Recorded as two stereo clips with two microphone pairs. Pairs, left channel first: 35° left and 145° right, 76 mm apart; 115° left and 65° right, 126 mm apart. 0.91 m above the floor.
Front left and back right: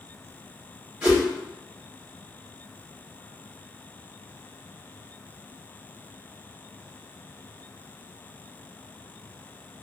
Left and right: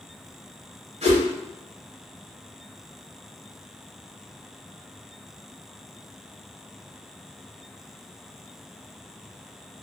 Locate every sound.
1.0 s a whoosh: 75° right, 1.3 m